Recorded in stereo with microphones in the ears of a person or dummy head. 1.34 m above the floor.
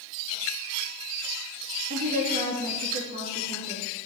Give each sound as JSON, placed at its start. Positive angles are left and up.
{"t": 1.9, "sound": "a woman speaking", "side_deg": -40, "distance_m": 2.5}